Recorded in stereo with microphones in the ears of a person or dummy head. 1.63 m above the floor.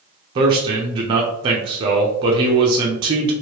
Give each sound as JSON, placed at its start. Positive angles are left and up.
{"t": 0.3, "sound": "a man speaking", "side_deg": -25, "distance_m": 0.6}